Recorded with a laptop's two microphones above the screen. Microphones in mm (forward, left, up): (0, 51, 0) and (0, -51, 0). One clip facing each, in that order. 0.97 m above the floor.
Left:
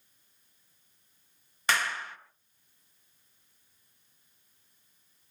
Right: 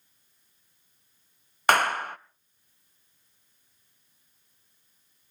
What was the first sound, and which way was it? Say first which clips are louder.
A clap: right 8 dB; 55° right (ahead or behind).